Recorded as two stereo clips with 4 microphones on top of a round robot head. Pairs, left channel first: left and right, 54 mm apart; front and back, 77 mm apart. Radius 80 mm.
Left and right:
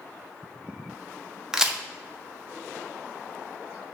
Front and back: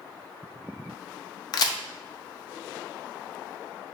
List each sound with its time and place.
1.5 s a crack: 10° right, 0.6 m